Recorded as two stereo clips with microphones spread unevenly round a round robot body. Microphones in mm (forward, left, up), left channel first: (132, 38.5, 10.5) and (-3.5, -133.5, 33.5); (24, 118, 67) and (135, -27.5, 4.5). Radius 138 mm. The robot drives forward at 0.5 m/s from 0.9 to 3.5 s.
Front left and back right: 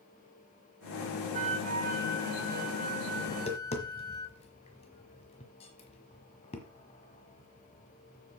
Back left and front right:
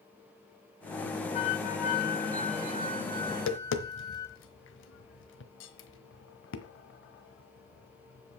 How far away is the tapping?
About 1.2 m.